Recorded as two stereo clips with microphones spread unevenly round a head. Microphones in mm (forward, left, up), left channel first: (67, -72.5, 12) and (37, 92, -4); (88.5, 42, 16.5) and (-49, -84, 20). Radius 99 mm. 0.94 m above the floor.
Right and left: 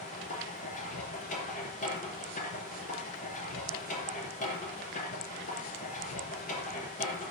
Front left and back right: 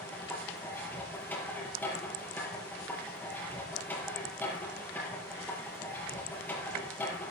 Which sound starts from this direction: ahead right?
A machine running, at 0.0 s.